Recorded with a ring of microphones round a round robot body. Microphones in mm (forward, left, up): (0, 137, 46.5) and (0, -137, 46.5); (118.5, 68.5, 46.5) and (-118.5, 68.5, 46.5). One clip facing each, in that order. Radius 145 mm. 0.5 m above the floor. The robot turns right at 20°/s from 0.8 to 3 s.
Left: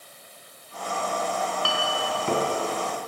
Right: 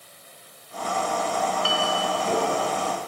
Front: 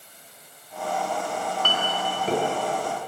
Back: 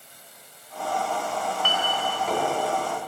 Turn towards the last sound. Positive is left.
turn(degrees=75)